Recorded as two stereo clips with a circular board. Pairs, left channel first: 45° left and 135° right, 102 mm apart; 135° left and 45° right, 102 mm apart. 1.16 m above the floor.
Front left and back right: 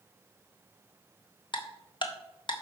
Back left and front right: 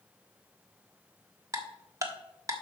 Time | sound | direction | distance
1.5 | ticking | 10° left | 1.4 m